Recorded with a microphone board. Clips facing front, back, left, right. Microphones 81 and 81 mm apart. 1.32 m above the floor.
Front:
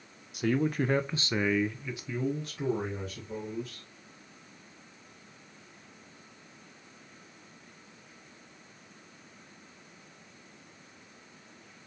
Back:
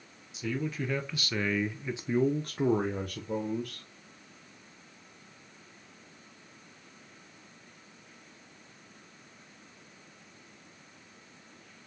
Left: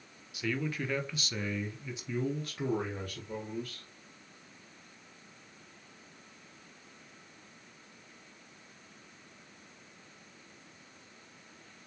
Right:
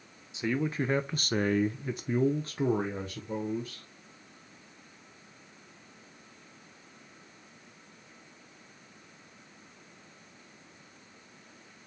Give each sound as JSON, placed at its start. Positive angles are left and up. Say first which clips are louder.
{"t": 0.3, "sound": "a man speaking", "louder": "front 6 dB, right 4 dB", "azimuth_deg": -25, "distance_m": 1.0}